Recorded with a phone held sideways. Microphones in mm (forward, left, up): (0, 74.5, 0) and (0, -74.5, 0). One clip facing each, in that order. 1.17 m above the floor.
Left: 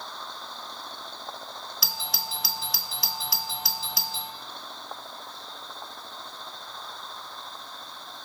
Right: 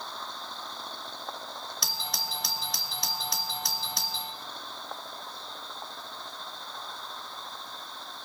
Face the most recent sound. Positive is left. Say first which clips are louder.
# left 2 dB
turn(degrees=0)  # may be behind; listen again after turning